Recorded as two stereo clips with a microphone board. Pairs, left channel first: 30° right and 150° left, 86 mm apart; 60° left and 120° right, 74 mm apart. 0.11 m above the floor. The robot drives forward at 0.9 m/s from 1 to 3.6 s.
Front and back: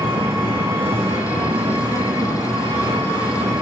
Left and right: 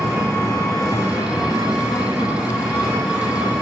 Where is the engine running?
145° left, 3 m; by 3.6 s 160° left, 5 m.